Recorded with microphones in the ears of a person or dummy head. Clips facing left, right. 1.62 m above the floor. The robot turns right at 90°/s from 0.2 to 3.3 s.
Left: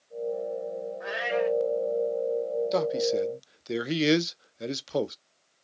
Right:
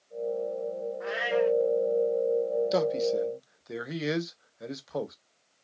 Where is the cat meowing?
5° right (ahead or behind), 1.0 m; by 1.6 s 10° left (ahead or behind), 1.0 m.